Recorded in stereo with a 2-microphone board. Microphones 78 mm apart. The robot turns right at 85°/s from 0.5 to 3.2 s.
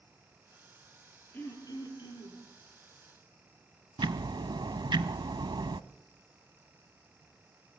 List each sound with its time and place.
1.3 s throat clearing: 20° left, 8 m; by 2.4 s 110° left, 8 m
4.0 s ticking: 80° right, 0.8 m